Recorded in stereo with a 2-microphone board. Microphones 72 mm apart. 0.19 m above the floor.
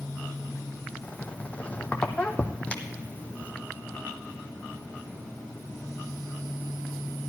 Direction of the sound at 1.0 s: 20° left (ahead or behind).